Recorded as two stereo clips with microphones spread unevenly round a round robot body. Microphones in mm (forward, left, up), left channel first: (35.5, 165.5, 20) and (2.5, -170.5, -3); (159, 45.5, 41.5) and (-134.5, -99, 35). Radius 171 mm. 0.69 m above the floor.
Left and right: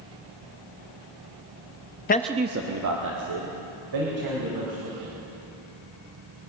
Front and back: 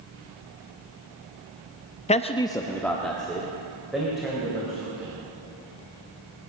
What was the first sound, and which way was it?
A man speaking, 70° left.